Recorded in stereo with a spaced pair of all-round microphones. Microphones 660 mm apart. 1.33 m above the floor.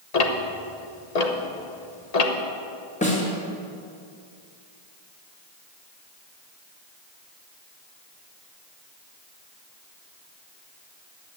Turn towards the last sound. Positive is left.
turn(degrees=10)  # may be behind; listen again after turning